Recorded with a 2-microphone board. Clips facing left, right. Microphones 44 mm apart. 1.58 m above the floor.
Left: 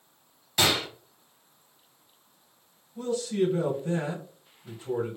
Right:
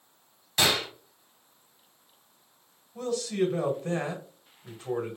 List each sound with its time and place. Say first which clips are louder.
0.6 s a gunshot: even; centre (ahead or behind), 1.9 m
3.0 s a man speaking: left 1 dB; 85° right, 1.6 m